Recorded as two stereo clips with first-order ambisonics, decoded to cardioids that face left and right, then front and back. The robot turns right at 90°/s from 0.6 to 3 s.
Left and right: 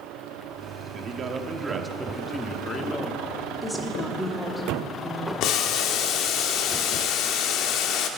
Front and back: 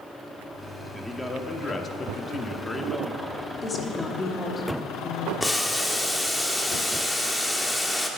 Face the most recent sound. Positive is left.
turn(degrees=80)